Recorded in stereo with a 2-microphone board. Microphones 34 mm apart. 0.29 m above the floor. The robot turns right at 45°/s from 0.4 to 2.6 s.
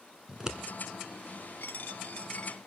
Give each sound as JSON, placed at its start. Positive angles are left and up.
{"t": 0.3, "sound": "scissors", "side_deg": -15, "distance_m": 1.3}
{"t": 1.6, "sound": "a dropped coin", "azimuth_deg": 100, "distance_m": 0.8}